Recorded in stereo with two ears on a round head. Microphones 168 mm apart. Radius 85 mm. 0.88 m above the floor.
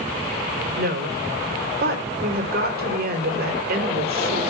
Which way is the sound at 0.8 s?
55° right (ahead or behind).